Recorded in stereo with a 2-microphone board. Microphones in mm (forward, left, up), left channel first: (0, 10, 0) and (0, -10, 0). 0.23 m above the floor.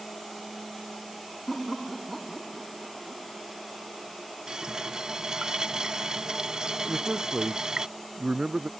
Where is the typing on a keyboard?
I don't hear typing on a keyboard.